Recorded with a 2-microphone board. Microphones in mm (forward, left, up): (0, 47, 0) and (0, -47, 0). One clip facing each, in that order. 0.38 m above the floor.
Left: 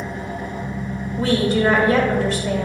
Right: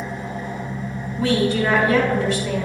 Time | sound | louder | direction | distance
0.0 | an engine running | left 1 dB | 65° left (ahead or behind) | 2 m
1.2 | a woman speaking | left 1 dB | 40° left (ahead or behind) | 1.8 m